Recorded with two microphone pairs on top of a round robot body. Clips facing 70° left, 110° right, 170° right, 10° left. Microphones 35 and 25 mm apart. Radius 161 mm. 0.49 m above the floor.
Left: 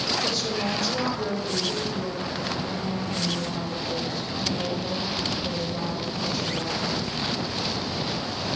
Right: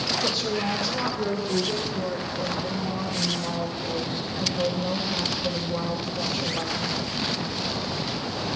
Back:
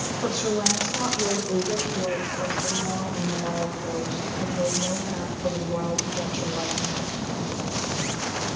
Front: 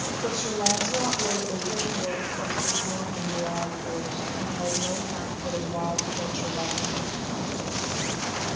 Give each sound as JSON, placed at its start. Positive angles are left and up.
{"t": 0.2, "sound": "a woman speaking", "azimuth_deg": 180, "distance_m": 7.5}